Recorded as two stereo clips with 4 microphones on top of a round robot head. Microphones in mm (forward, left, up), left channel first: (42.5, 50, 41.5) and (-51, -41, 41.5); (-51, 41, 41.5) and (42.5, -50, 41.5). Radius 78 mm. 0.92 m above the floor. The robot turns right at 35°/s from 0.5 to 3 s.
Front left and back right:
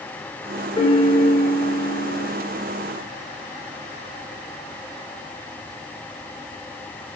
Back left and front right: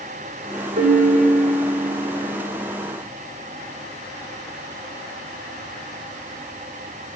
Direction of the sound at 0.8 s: 15° right.